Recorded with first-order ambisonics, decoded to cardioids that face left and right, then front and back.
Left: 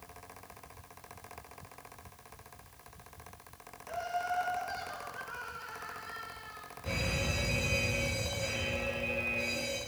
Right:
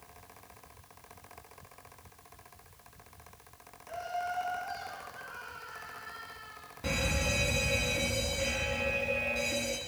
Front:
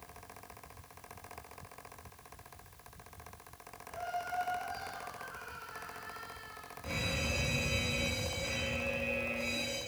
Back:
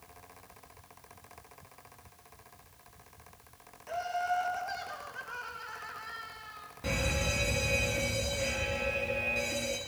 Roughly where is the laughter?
Behind.